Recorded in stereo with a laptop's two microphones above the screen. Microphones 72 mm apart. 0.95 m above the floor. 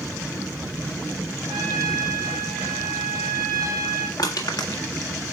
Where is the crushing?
75° left (ahead or behind), 1.6 m.